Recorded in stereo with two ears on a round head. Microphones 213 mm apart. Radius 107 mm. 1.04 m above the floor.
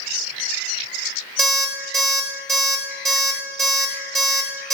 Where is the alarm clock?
10° right (ahead or behind), 1.5 m.